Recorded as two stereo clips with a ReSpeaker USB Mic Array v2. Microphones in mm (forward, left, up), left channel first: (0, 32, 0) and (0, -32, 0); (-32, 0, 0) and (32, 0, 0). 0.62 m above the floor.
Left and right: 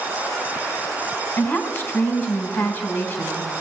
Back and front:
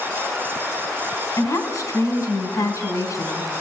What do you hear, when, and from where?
1.4 s a woman speaking: 155° left, 4.5 m